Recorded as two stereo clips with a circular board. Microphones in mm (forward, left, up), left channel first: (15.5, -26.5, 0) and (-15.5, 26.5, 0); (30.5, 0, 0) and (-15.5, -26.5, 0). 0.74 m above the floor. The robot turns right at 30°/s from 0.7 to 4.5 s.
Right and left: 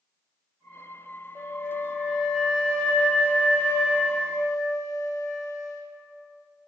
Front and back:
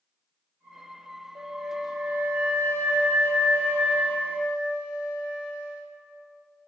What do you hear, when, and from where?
1.4 s a flute: 175° right, 0.8 m; by 5.8 s 80° right, 0.8 m